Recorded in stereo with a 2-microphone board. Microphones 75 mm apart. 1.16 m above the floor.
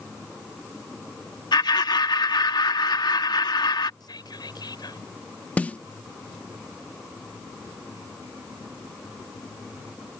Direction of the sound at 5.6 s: 20° left (ahead or behind).